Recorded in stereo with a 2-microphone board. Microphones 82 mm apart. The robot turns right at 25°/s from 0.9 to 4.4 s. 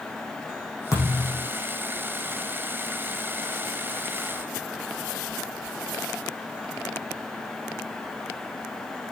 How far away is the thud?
About 6 m.